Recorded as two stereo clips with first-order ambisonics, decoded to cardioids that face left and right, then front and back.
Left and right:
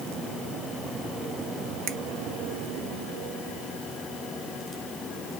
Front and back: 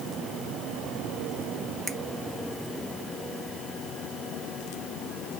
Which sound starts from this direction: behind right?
A finger snap, at 1.9 s.